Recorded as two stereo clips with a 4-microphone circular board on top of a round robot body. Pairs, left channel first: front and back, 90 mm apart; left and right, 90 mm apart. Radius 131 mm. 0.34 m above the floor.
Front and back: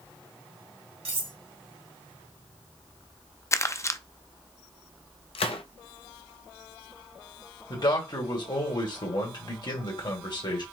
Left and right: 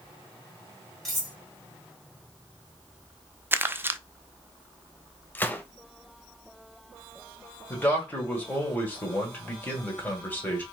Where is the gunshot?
20° left, 0.6 m.